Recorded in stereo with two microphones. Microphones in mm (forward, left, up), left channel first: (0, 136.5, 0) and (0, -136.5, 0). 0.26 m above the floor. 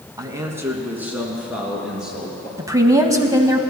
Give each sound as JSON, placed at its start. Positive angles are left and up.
{"t": 0.2, "sound": "a man speaking", "side_deg": -15, "distance_m": 1.5}
{"t": 2.6, "sound": "a woman speaking", "side_deg": -10, "distance_m": 1.3}